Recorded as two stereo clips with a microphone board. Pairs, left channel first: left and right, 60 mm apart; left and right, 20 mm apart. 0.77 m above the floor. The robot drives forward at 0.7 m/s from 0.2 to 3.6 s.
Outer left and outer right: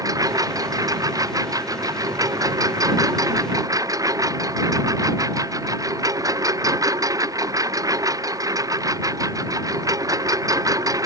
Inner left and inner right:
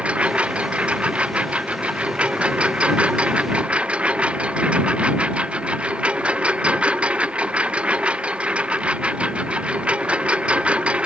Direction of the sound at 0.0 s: 75° right (ahead or behind).